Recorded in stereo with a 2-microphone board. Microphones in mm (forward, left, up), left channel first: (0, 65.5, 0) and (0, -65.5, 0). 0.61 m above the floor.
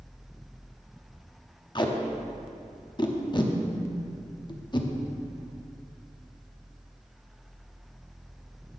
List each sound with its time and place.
1.8 s tape being pulled: 35° left (ahead or behind), 0.6 m